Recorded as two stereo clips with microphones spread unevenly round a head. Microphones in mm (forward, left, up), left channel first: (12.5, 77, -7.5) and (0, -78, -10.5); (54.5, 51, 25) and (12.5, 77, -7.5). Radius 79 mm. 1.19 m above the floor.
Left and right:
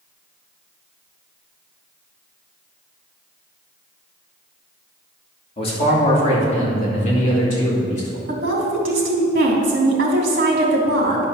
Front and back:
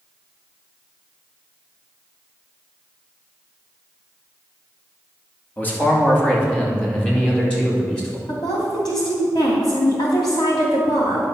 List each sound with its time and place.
5.6 s a man speaking: 30° left, 3 m; by 8.2 s 45° left, 4 m
8.3 s a woman speaking: 65° right, 3 m